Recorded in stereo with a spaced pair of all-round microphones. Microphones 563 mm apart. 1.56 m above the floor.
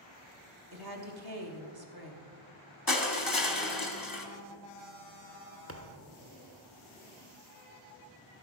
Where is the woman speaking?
40° right (ahead or behind), 1.5 m.